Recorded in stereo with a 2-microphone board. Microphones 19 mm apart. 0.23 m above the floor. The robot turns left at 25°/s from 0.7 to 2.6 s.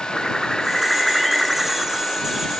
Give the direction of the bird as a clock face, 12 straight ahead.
12 o'clock.